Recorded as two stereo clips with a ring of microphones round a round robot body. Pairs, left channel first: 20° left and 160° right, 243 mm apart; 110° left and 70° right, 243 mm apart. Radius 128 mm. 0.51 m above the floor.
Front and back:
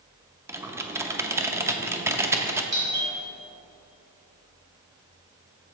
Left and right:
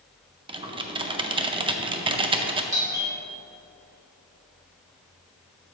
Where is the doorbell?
140° right, 2.5 m.